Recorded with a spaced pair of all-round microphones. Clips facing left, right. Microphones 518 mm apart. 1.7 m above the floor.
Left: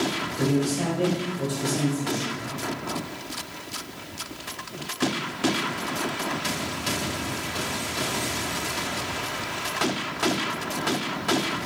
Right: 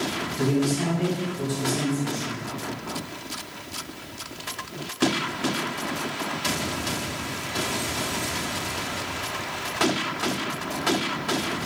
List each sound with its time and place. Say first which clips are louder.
0.4 s a man speaking: right 1 dB; 20° right (ahead or behind), 1.2 m